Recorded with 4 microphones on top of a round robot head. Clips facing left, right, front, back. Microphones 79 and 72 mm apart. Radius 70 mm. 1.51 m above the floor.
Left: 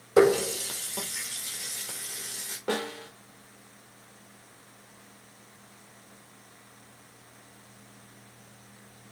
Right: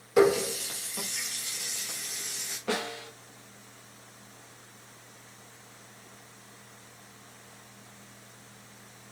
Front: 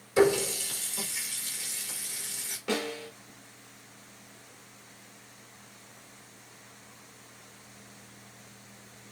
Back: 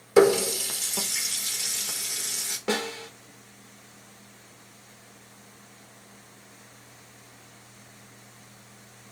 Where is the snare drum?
155° left, 1.4 m.